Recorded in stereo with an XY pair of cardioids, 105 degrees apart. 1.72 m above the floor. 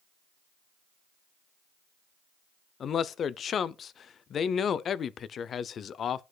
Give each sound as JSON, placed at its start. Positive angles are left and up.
{"t": 2.8, "sound": "a man speaking", "azimuth_deg": 50, "distance_m": 0.5}